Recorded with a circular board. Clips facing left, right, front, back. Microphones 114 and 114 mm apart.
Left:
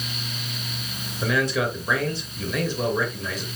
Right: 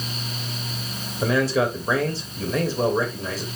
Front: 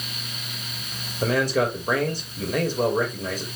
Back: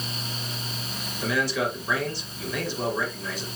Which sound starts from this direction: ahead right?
A man speaking, at 1.2 s.